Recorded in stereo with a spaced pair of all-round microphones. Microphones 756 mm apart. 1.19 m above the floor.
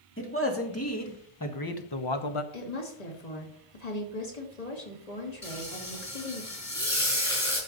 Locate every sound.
0.2 s a man speaking: 15° left (ahead or behind), 2.5 m; by 2.4 s 45° left (ahead or behind), 0.9 m
2.5 s a woman speaking: 60° left (ahead or behind), 2.5 m
5.4 s frying: 45° left (ahead or behind), 5.5 m